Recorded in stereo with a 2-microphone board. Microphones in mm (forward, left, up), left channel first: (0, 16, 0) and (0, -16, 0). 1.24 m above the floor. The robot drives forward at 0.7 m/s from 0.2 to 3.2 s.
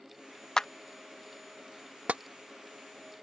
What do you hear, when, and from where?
0.6 s a clap: 20° left (ahead or behind); by 0.7 s 15° left (ahead or behind)
2.1 s tapping: 45° right (ahead or behind)